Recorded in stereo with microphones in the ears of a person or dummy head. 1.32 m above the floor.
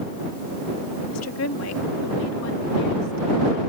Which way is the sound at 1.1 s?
80° left.